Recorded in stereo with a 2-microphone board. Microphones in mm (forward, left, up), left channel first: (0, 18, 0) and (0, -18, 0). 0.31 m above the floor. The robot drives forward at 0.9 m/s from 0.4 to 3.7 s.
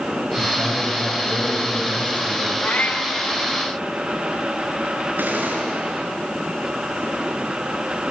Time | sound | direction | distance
0.4 | a man speaking | 45° right (ahead or behind) | 7.5 m
2.6 | a cat meowing | 55° left (ahead or behind) | 1.5 m
5.2 | a gunshot | 60° right (ahead or behind) | 5.5 m